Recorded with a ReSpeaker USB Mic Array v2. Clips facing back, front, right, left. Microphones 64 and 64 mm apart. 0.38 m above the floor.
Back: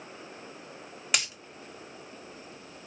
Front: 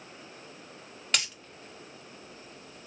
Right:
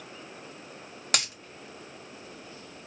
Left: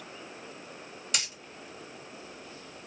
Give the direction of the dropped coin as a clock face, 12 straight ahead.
3 o'clock.